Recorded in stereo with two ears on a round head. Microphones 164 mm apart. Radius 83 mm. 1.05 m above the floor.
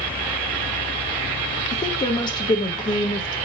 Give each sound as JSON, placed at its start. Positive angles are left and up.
{"t": 1.7, "sound": "a woman speaking", "side_deg": 25, "distance_m": 1.1}